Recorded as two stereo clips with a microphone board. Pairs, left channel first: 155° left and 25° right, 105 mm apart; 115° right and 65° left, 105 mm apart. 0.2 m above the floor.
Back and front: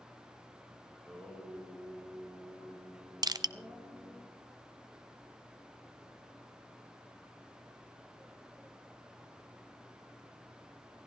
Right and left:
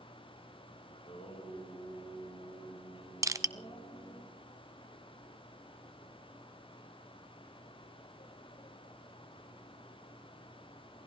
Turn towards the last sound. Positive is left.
turn(degrees=20)